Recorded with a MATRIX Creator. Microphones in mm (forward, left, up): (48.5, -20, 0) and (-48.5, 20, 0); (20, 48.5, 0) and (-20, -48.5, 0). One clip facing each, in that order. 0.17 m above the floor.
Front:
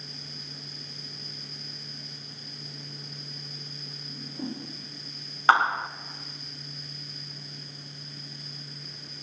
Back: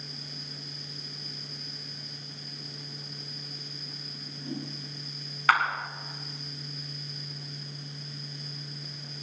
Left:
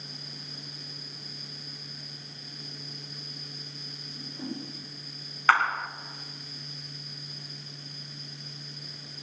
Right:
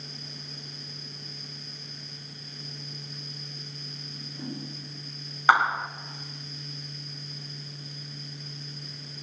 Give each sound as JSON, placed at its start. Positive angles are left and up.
{"t": 4.1, "sound": "a whoosh", "azimuth_deg": -15, "distance_m": 9.5}
{"t": 5.5, "sound": "a clap", "azimuth_deg": -55, "distance_m": 1.0}